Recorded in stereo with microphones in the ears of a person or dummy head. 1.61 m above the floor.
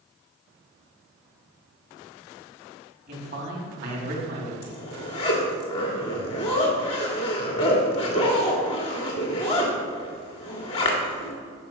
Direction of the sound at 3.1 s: 60° right (ahead or behind).